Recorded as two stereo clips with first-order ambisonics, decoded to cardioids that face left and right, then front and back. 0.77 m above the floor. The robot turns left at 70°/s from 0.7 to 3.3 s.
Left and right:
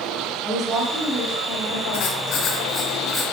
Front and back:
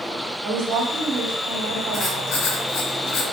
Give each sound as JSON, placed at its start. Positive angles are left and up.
{"t": 0.4, "sound": "a woman speaking", "azimuth_deg": -145, "distance_m": 3.5}
{"t": 1.9, "sound": "writing", "azimuth_deg": 75, "distance_m": 2.5}